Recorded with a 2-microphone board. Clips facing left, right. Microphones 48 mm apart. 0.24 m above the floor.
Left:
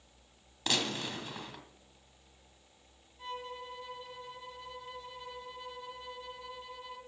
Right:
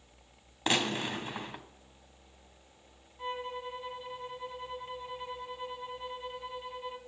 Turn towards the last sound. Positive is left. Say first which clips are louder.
# right 5 dB
turn(degrees=-25)  # may be behind; listen again after turning